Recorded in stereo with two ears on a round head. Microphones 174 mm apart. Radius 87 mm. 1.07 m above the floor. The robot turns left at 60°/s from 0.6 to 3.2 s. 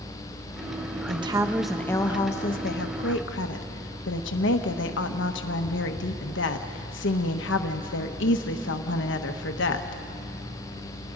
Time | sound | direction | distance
1.1 | a woman speaking | 145° right | 1.2 m